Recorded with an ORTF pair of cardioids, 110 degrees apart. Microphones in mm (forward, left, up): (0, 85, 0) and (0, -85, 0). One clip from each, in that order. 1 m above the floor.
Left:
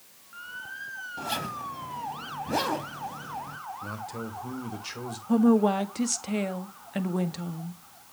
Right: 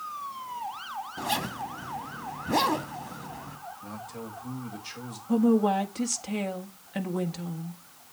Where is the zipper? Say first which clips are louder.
Right 2 dB; 15° right, 2 m.